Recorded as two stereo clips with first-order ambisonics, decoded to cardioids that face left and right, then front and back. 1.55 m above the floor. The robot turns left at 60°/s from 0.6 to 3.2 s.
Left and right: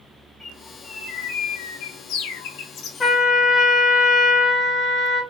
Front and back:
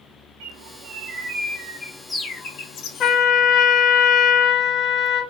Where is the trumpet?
30° left, 0.8 m; by 5.2 s 20° left, 0.8 m.